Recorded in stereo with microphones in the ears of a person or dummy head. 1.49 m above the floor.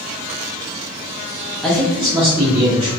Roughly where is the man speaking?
Centre.